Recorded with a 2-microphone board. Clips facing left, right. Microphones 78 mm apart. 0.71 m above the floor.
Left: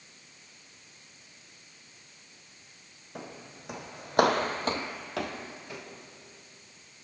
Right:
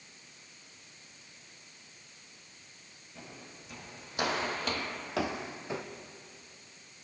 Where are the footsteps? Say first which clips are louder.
Left 6 dB; 70° left (ahead or behind), 2.5 m; by 5.8 s 25° right (ahead or behind), 1.9 m.